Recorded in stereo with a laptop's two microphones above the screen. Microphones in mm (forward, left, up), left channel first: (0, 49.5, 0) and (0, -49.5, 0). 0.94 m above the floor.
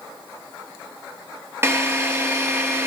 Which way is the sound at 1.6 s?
25° right (ahead or behind).